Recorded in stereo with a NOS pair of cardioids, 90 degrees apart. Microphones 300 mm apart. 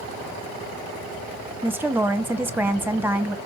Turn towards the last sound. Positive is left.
turn(degrees=-5)